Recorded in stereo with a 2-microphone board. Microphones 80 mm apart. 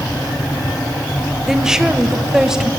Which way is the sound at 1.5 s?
5° right (ahead or behind).